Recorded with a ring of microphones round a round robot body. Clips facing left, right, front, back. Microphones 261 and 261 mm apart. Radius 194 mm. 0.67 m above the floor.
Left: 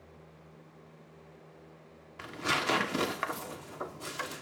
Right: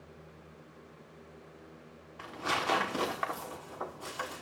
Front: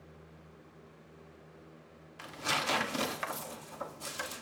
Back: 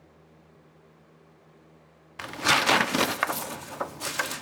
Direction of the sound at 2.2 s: 160° left.